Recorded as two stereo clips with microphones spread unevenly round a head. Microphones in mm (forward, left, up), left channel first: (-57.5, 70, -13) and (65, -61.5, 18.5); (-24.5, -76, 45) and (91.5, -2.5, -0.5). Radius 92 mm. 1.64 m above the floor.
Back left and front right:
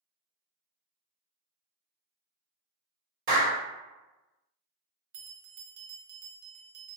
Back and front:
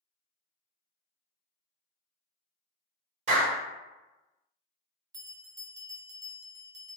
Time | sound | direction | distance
3.3 | a clap | 10° right | 1.2 m
5.1 | a bell | 30° right | 0.6 m